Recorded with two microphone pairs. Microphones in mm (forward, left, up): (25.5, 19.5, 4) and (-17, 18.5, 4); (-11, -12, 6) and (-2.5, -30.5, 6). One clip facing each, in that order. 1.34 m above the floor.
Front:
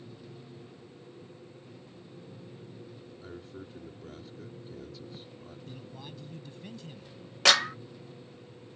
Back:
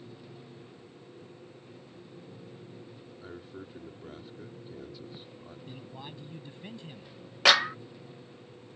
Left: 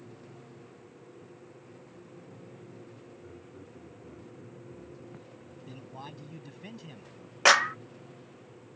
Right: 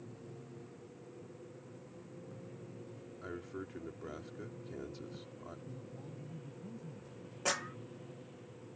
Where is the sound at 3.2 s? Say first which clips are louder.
Back 1 dB, right 4 dB; 95° right.